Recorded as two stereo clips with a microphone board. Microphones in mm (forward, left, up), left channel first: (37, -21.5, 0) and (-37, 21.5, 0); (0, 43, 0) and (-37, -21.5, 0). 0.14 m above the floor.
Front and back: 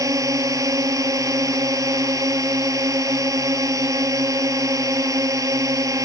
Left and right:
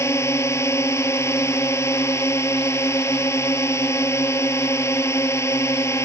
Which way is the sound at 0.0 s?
105° left.